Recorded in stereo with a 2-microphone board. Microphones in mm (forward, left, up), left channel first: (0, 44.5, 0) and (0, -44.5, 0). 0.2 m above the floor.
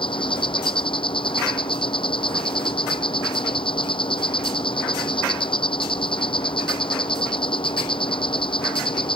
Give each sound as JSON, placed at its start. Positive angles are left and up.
{"t": 0.0, "sound": "an insect", "side_deg": 75}